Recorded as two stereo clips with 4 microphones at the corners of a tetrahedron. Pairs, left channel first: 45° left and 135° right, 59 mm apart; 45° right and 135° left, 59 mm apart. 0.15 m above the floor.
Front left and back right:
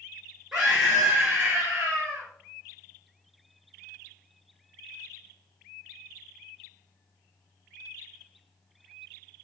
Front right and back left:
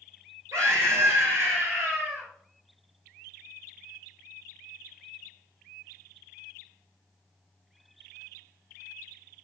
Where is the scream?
150° left, 3 m; by 2.3 s 170° left, 2.5 m.